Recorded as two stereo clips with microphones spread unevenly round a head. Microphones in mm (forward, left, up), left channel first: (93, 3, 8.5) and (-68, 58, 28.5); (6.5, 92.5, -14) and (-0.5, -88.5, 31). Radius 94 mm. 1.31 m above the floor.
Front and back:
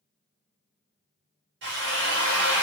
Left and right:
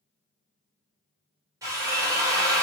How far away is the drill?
About 1.2 m.